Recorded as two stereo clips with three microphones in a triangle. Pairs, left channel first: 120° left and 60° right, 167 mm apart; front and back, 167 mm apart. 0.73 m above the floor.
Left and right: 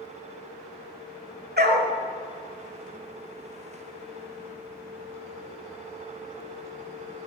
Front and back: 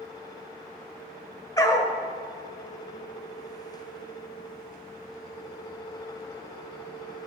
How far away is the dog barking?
About 1.2 m.